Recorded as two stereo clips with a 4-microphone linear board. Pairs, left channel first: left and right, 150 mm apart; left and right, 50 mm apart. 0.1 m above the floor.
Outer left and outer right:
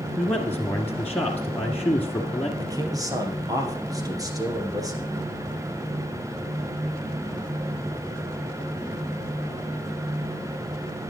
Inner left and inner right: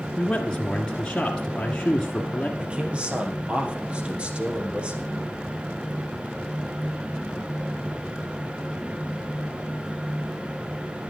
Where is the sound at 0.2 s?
10° left (ahead or behind), 1.4 m.